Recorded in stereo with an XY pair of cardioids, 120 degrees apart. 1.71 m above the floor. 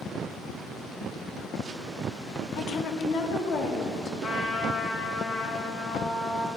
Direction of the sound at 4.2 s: 35° left.